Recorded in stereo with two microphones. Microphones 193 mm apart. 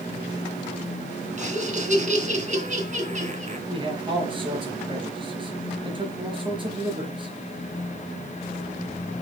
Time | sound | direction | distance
1.4 | laughter | 40° right (ahead or behind) | 2.5 m
3.7 | a man speaking | 25° right (ahead or behind) | 4 m